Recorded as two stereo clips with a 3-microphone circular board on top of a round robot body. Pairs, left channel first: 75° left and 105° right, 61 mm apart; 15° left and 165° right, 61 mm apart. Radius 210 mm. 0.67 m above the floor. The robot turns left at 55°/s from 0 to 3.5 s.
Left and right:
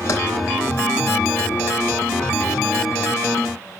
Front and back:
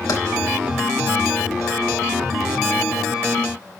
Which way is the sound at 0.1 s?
30° left.